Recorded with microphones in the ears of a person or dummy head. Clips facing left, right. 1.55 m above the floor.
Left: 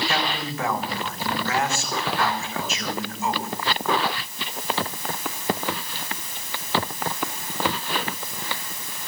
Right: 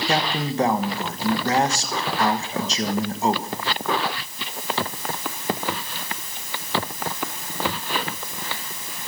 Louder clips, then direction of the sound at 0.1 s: Right 4 dB; 30° right (ahead or behind).